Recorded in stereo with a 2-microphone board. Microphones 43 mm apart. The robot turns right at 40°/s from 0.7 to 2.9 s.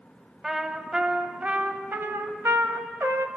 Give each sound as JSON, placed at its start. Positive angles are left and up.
{"t": 0.4, "sound": "a trumpet", "azimuth_deg": -170, "distance_m": 1.5}